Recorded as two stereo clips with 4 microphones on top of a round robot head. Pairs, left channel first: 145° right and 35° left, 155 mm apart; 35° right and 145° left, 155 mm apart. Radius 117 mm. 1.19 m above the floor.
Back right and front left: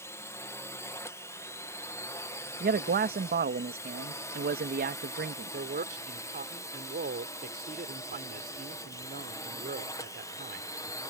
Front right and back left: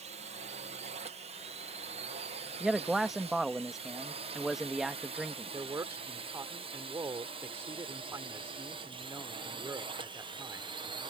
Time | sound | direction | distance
0.0 | a drone | 150° left | ?
2.6 | a man speaking | 55° left | ?
5.5 | a man speaking | 70° left | ?